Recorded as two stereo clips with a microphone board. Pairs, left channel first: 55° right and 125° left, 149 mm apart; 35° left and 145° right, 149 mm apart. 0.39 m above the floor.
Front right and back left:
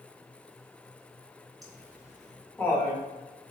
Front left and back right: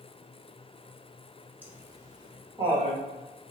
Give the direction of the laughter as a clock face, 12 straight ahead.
7 o'clock.